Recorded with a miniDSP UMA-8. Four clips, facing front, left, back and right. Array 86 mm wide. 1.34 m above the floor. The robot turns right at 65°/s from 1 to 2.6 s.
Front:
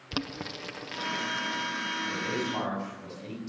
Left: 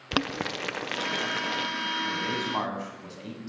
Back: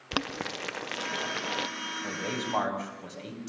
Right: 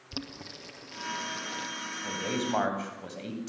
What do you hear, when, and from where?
0.1 s boiling: 115° left, 0.6 m; by 1.7 s 160° left, 0.6 m
2.0 s a man speaking: 155° right, 8 m; by 3.5 s 120° right, 8 m